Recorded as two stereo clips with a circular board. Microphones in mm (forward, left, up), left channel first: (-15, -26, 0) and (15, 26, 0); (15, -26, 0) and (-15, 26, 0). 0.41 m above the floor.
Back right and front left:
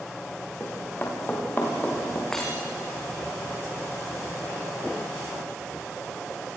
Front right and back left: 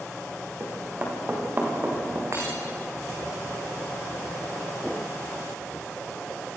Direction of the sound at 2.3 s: 160° left.